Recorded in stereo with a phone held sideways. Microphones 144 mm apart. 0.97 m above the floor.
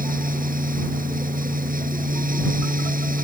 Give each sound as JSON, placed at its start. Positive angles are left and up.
{"t": 0.0, "sound": "a fan", "side_deg": -80}